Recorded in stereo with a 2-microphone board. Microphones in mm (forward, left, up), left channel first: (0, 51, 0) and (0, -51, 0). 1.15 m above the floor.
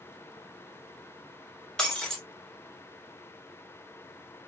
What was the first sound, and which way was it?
Breaking glass, 5° left (ahead or behind).